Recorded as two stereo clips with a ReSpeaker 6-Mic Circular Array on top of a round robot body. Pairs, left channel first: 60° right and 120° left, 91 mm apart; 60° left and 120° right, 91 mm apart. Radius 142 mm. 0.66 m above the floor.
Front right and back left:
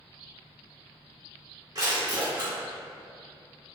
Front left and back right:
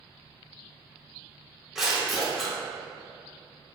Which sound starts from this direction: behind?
Crushing, at 1.8 s.